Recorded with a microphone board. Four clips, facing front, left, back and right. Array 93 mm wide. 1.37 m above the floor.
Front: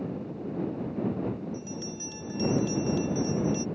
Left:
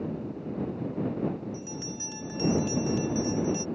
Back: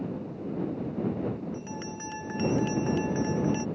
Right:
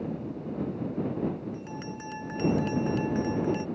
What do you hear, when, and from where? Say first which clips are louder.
1.5 s a bell: even, even; 140° right